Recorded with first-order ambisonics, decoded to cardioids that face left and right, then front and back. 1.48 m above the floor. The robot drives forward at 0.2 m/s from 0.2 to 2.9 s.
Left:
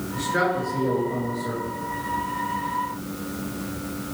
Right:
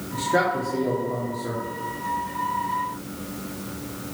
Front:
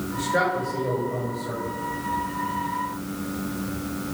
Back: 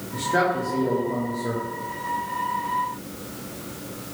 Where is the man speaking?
115° right, 0.9 m; by 1.6 s 130° right, 1.1 m.